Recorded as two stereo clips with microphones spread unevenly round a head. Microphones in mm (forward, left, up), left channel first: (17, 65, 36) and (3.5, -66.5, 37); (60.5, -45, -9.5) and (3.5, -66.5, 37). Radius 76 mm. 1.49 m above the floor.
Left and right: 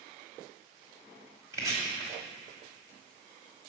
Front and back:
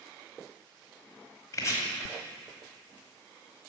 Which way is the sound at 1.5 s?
60° right.